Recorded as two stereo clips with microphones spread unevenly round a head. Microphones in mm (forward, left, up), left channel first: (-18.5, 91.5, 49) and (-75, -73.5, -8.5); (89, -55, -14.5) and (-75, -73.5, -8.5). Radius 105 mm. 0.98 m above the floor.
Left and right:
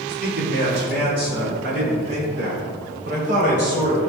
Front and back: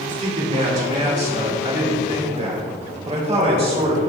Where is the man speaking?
130° right, 2.5 m; by 4.0 s 125° right, 4.5 m.